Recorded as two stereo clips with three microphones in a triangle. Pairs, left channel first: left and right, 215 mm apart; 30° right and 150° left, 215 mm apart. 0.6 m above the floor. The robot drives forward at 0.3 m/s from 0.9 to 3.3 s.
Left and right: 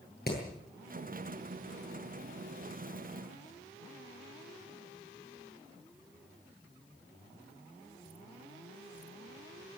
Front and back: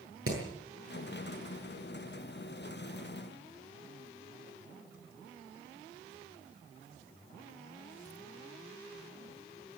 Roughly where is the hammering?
Behind left.